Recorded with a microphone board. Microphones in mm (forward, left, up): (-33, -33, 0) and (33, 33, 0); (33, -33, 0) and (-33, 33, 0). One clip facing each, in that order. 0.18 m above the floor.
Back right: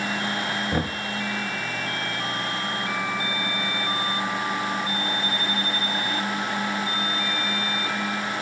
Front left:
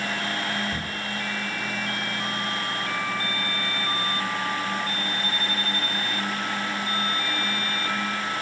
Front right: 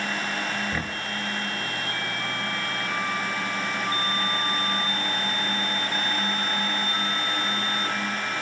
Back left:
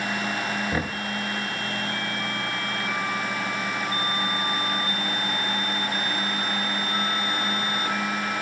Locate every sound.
0.7 s knocking: 155° right, 1.9 m